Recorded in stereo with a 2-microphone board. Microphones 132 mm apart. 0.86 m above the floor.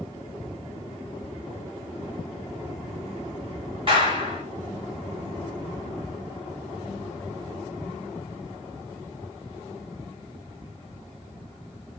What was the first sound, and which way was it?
A clap, 40° right (ahead or behind).